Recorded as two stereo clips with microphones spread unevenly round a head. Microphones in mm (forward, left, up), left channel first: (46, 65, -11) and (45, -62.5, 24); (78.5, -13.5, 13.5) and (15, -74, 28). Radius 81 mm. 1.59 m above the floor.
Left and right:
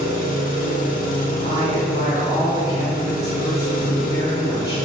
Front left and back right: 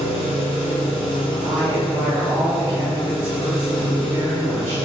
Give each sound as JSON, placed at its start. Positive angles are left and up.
{"t": 0.0, "sound": "an engine running", "azimuth_deg": 80, "distance_m": 0.7}
{"t": 1.4, "sound": "a woman speaking", "azimuth_deg": 160, "distance_m": 1.9}